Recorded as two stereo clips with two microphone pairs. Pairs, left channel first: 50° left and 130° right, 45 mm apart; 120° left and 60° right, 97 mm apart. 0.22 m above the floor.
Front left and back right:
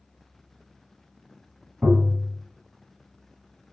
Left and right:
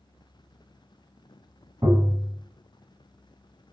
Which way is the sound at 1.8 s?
85° right.